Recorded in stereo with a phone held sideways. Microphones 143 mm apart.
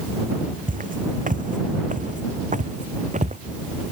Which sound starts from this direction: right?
Footsteps, at 0.7 s.